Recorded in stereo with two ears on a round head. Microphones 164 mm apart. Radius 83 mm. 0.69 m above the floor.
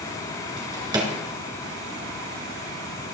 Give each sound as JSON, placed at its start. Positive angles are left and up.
{"t": 0.6, "sound": "a drawer", "side_deg": -20, "distance_m": 2.0}